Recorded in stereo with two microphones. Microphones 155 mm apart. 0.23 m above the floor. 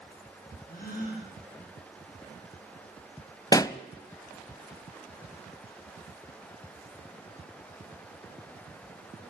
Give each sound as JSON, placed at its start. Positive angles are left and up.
{"t": 0.7, "sound": "a gasp", "side_deg": 70, "distance_m": 8.0}
{"t": 3.5, "sound": "a pop", "side_deg": 25, "distance_m": 0.5}